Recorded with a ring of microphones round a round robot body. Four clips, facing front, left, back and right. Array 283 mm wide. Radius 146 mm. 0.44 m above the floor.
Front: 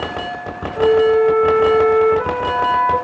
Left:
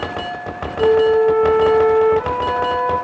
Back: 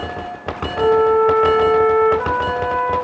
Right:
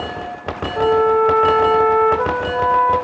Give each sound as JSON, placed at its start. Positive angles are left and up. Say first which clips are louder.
{"t": 0.8, "sound": "a flute", "louder": "left 1 dB, front 1 dB", "azimuth_deg": -70, "distance_m": 3.0}